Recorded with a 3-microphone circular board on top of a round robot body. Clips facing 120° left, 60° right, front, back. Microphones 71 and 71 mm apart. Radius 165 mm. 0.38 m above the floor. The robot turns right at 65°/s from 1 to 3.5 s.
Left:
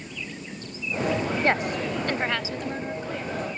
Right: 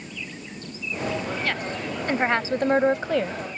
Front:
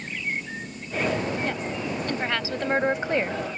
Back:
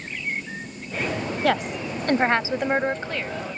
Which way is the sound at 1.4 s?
Straight behind.